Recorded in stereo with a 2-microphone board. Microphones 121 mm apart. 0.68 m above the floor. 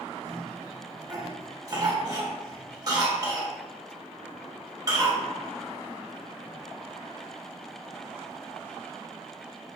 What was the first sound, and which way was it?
A cough, 30° right (ahead or behind).